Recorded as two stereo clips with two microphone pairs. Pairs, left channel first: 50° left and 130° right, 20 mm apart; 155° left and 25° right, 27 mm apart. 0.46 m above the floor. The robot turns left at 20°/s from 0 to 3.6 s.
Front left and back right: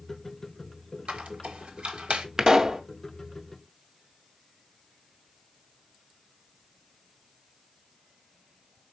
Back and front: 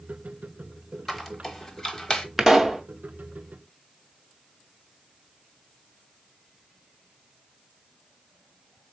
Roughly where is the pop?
Right.